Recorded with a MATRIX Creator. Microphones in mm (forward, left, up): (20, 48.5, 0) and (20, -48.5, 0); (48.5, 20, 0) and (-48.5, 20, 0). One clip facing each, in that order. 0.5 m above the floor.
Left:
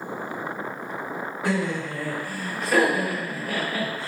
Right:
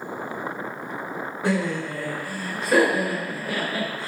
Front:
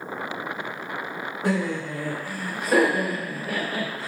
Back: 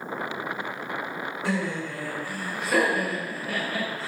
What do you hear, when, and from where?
1.4 s laughter: 30° right, 1.7 m